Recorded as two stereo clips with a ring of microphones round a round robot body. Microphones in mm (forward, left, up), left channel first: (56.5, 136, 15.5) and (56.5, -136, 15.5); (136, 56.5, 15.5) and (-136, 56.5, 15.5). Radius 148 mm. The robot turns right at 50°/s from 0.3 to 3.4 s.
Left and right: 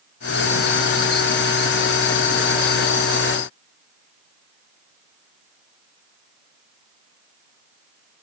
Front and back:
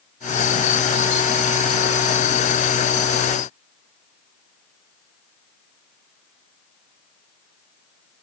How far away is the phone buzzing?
No phone buzzing in this recording.